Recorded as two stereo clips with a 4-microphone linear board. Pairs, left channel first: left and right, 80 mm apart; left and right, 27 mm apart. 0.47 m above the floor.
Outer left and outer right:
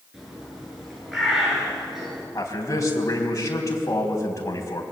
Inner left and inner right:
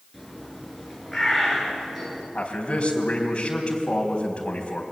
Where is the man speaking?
40° left (ahead or behind), 4 m.